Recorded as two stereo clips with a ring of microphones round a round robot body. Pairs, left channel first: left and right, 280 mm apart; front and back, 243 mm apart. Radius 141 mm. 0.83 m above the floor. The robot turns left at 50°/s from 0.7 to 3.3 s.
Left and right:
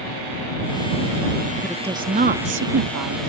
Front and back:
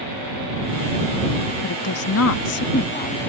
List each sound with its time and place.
1.6 s a woman speaking: straight ahead; by 3.3 s 80° right